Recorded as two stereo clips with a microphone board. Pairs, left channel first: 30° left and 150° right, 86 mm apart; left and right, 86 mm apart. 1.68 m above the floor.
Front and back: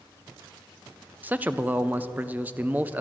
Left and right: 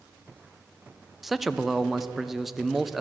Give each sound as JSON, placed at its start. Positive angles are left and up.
{"t": 1.2, "sound": "a man speaking", "azimuth_deg": -175, "distance_m": 0.5}